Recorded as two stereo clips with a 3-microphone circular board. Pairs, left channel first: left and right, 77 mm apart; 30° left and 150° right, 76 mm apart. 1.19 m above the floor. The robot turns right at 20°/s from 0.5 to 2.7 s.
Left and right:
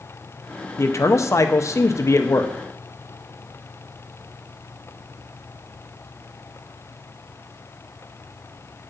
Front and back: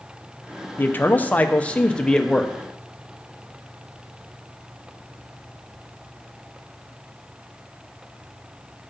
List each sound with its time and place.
0.8 s a man speaking: 75° left, 0.6 m; by 2.5 s 110° left, 0.6 m